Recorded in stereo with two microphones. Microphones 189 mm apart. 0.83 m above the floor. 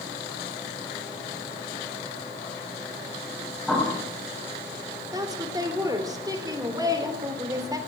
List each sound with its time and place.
3.7 s a bird: 5° left (ahead or behind), 6.5 m
5.1 s a woman speaking: 20° right (ahead or behind), 3.5 m